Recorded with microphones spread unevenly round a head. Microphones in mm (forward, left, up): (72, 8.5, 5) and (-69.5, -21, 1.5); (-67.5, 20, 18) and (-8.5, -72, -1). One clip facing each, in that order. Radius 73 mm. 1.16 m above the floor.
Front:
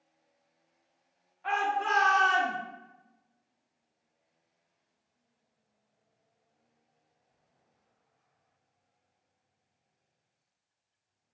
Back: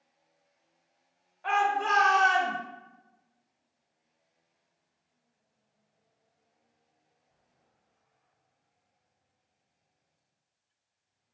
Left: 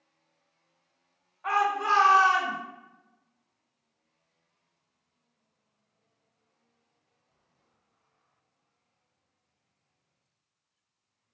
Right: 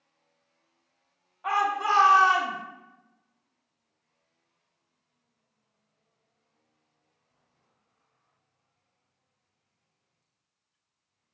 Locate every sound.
1.4 s a shout: 135° right, 1.7 m